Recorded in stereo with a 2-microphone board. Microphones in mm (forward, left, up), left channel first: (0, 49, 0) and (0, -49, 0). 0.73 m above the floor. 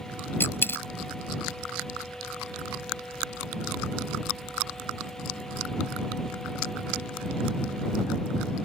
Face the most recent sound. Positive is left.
turn(degrees=25)  # may be behind; listen again after turning